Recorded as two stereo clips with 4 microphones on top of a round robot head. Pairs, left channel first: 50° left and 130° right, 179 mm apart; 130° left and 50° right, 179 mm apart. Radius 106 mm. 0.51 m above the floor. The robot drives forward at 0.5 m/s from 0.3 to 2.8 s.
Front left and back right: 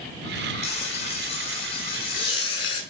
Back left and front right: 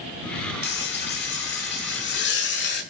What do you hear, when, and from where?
0.6 s frying: 105° left, 7 m; by 2.8 s 115° left, 7 m